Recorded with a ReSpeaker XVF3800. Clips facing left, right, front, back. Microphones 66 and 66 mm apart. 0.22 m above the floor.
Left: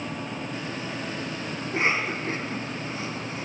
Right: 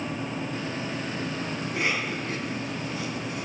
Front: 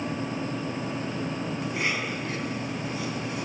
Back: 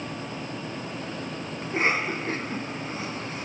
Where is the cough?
140° left, 2.5 m.